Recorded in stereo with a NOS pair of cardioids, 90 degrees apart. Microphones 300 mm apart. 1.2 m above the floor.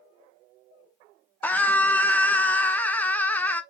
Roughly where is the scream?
Ahead.